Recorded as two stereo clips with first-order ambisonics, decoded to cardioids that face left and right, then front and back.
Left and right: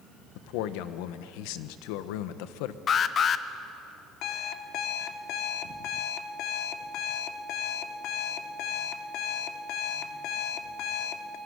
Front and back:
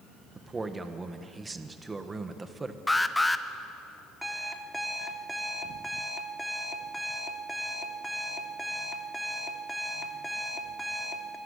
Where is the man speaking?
100° left, 1.2 m.